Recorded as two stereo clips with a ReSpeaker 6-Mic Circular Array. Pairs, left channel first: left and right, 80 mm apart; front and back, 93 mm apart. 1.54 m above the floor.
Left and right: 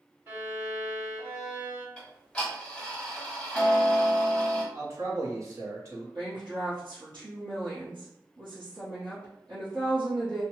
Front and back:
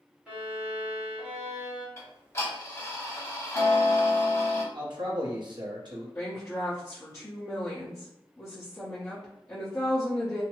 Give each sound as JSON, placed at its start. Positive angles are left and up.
{"t": 0.3, "sound": "a violin", "azimuth_deg": -115, "distance_m": 1.6}
{"t": 2.0, "sound": "ticking", "azimuth_deg": 20, "distance_m": 1.2}
{"t": 4.7, "sound": "a man speaking", "azimuth_deg": -140, "distance_m": 1.0}
{"t": 6.2, "sound": "a woman speaking", "azimuth_deg": -60, "distance_m": 1.1}